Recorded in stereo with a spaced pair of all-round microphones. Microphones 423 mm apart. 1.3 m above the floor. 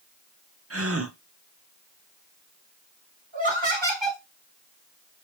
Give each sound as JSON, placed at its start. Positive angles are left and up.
{"t": 0.7, "sound": "a gasp", "side_deg": -30, "distance_m": 0.6}
{"t": 3.3, "sound": "laughter", "side_deg": -80, "distance_m": 2.0}